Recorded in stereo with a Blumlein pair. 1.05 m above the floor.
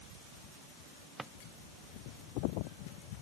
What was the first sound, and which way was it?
A drawer, 10° right.